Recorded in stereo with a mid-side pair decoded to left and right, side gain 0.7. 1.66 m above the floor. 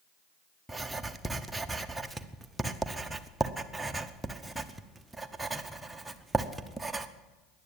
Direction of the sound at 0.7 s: 10° right.